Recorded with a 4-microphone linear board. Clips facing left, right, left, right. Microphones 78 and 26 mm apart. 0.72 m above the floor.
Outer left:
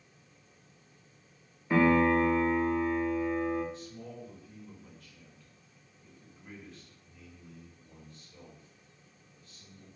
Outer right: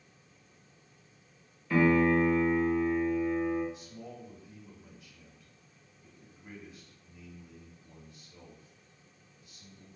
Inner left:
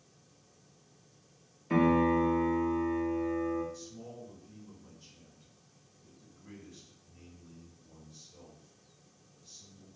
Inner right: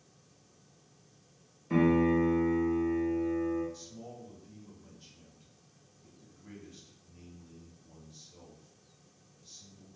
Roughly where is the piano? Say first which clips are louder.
Even, even; left.